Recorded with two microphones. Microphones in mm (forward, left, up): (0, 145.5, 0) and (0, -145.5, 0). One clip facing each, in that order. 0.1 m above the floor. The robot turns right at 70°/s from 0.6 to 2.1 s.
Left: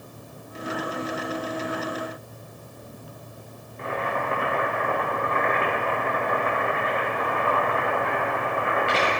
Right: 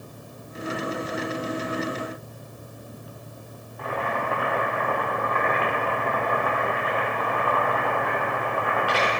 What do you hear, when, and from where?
3.8 s boiling: 25° left (ahead or behind), 3 m